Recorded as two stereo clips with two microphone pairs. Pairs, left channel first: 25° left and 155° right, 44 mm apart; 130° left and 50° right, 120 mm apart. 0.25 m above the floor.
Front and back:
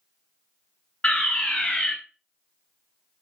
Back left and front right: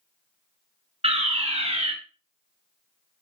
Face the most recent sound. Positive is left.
turn(degrees=-35)